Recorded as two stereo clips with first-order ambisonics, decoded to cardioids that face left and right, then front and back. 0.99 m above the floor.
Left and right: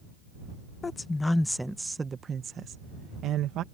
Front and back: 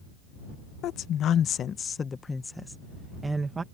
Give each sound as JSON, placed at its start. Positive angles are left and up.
{"t": 0.8, "sound": "a woman speaking", "azimuth_deg": 20}